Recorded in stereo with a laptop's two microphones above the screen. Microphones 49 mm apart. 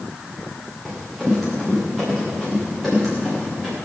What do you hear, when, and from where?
0.8 s running footsteps: centre (ahead or behind), 9.5 m